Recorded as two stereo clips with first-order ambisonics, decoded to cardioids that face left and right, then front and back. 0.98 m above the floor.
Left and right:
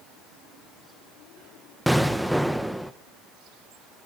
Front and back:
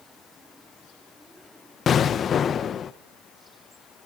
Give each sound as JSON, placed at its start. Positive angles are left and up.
{"t": 1.9, "sound": "an explosion", "azimuth_deg": 0, "distance_m": 0.6}